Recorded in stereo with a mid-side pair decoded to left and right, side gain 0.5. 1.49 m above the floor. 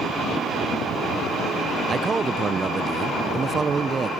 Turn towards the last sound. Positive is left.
turn(degrees=-30)